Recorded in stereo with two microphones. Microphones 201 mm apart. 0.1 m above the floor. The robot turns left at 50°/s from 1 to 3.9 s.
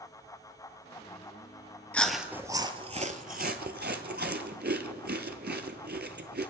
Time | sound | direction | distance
1.9 | chewing | 10° left (ahead or behind) | 0.7 m